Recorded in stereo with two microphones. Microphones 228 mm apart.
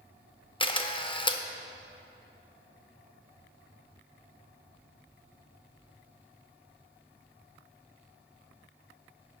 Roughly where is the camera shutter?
Left.